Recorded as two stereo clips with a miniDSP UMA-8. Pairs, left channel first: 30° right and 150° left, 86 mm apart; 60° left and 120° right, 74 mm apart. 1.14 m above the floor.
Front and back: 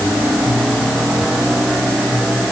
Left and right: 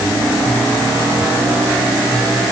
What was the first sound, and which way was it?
Only background noise.